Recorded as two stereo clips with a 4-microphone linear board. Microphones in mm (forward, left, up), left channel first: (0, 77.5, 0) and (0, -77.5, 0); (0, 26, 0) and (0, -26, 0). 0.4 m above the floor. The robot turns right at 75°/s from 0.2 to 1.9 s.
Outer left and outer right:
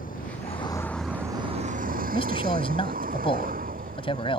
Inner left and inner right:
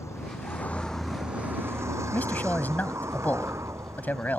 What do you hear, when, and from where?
0.0 s a vehicle: 65° left (ahead or behind); by 4.4 s 65° right (ahead or behind)
2.1 s a man speaking: 35° left (ahead or behind)